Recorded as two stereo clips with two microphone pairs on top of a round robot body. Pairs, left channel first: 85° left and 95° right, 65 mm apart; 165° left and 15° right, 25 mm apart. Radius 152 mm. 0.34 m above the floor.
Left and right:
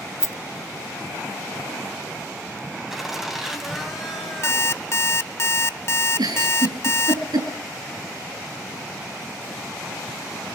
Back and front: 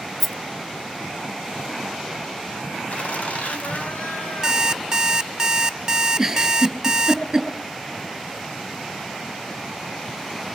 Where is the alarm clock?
55° left, 0.8 m.